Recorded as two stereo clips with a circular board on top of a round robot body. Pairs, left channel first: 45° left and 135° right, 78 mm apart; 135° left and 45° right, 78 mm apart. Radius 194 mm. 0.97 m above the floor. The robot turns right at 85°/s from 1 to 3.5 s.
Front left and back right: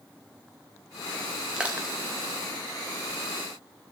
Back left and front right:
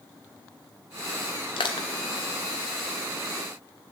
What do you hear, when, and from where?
1.6 s crushing: 140° left, 0.5 m; by 1.9 s 170° left, 0.5 m